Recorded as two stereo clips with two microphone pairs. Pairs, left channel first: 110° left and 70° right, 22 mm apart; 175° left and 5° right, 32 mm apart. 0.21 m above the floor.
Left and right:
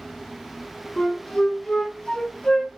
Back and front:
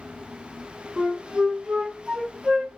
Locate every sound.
1.0 s a flute: 55° left, 1.7 m